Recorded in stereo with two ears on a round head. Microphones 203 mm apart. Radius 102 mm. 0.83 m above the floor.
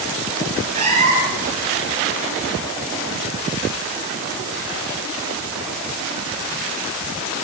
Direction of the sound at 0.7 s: 35° right (ahead or behind).